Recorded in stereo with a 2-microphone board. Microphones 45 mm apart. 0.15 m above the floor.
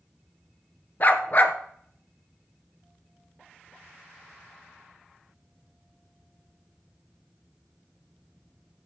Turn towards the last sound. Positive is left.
turn(degrees=40)  # may be behind; listen again after turning